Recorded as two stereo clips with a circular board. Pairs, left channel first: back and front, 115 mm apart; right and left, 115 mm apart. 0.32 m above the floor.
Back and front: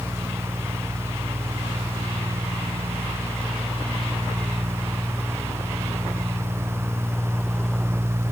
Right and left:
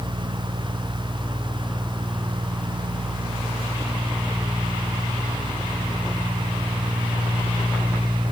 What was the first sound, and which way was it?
Only background noise.